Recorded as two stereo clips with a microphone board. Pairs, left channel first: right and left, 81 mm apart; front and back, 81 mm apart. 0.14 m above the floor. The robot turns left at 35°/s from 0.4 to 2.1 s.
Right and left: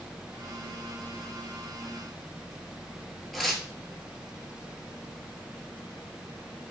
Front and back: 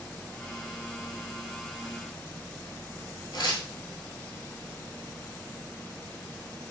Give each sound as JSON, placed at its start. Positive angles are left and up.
{"t": 3.3, "sound": "tearing paper", "azimuth_deg": 0, "distance_m": 0.8}